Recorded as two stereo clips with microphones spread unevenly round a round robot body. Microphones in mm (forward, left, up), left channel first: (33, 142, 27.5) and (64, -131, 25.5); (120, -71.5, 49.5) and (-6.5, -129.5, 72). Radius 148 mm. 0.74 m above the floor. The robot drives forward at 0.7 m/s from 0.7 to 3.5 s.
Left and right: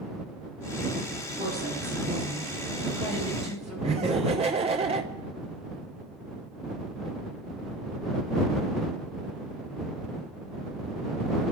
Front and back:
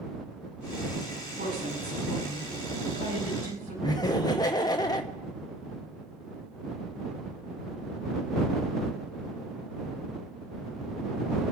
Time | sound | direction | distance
1.4 | a woman speaking | 145° right | 8 m
3.8 | laughter | 20° right | 1.0 m